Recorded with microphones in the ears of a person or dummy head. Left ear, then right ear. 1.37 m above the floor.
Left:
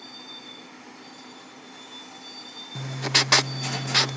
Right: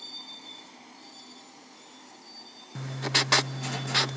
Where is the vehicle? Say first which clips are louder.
Even; 10° right (ahead or behind); by 4.2 s 35° left (ahead or behind).